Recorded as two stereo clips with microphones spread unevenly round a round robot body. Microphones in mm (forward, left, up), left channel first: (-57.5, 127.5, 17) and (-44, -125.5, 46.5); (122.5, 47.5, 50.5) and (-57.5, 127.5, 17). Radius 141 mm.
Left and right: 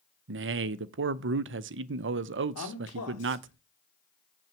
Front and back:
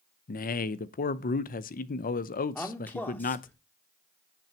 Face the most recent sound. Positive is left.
turn(degrees=60)